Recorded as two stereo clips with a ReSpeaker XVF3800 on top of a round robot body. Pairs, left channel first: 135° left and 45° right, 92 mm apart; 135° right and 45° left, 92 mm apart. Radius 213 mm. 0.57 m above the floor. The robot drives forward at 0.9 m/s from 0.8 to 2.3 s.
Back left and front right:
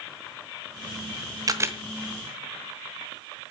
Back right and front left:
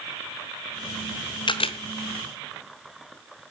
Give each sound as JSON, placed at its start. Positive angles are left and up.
{"t": 1.5, "sound": "a camera shutter", "azimuth_deg": -95, "distance_m": 0.8}